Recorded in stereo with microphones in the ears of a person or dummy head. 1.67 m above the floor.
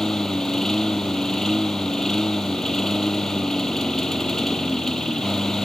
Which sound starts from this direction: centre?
A lawn mower, at 0.0 s.